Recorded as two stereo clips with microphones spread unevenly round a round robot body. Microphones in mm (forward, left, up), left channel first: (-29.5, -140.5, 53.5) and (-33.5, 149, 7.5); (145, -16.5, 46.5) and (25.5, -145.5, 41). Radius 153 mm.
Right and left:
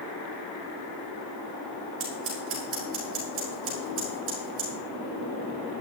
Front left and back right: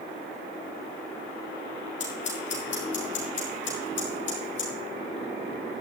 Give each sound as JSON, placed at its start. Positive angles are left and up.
{"t": 2.0, "sound": "scissors", "azimuth_deg": 45, "distance_m": 6.0}